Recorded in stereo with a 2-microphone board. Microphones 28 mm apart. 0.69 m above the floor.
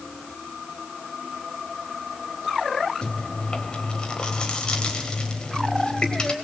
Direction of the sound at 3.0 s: 30° left (ahead or behind).